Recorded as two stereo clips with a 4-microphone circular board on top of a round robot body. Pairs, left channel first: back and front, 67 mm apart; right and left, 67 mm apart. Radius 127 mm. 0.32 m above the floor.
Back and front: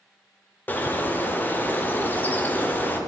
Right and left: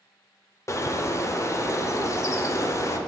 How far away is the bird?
About 0.8 m.